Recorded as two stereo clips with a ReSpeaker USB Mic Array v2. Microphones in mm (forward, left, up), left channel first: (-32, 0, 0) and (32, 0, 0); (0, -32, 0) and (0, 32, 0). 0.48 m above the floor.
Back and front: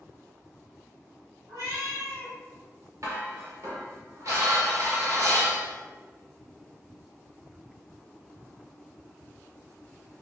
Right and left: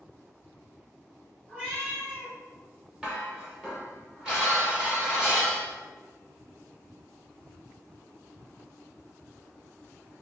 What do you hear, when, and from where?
1.5 s a cat meowing: 30° left, 1.7 m
3.0 s dishes clattering: 15° left, 1.0 m